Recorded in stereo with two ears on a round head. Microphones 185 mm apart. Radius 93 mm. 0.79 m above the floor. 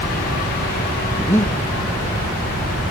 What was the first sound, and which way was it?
Breathing, 15° left (ahead or behind).